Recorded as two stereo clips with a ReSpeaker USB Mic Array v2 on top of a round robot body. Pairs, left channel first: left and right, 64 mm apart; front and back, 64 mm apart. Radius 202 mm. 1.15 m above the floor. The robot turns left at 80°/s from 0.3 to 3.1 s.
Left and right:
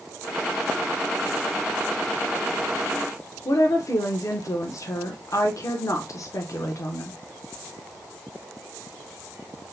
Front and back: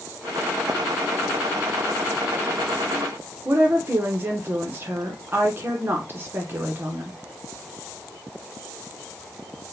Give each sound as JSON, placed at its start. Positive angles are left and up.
{"t": 3.5, "sound": "a woman speaking", "azimuth_deg": 125, "distance_m": 0.9}